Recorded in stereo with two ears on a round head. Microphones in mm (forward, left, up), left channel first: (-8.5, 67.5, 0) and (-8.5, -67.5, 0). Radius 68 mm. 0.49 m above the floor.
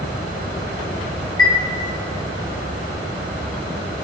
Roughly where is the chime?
Left.